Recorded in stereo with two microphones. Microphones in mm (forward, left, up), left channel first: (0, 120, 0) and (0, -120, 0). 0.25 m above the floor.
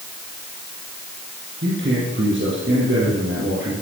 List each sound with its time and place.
1.6 s a man speaking: 50° right (ahead or behind), 5.5 m